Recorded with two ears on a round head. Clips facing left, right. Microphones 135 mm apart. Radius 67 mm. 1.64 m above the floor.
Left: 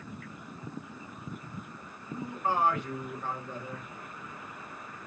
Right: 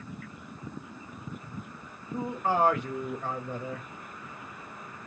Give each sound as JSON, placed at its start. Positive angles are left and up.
{"t": 2.1, "sound": "a man speaking", "side_deg": -65, "distance_m": 1.1}